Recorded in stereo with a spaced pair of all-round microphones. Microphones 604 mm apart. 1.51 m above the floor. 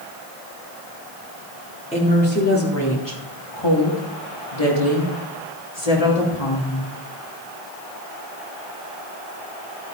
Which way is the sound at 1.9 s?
10° left (ahead or behind).